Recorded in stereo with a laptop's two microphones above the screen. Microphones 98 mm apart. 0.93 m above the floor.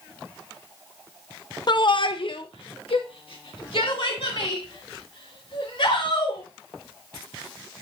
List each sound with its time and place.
1.7 s a shout: 50° left (ahead or behind), 0.6 m; by 6.4 s 60° left (ahead or behind), 3.5 m